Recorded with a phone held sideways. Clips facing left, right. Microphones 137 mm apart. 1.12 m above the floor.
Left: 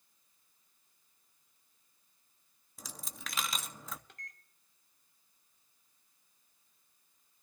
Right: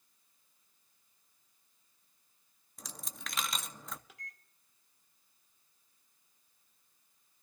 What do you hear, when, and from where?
2.8 s a dropped coin: centre (ahead or behind), 0.6 m
4.1 s a microwave: 5° right (ahead or behind), 0.8 m